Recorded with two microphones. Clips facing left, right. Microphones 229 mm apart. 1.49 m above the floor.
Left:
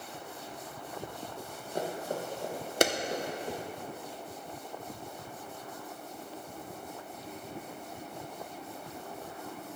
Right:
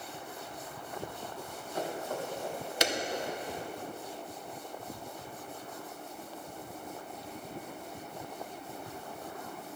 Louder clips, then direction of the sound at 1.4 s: Left 2 dB; 25° left (ahead or behind).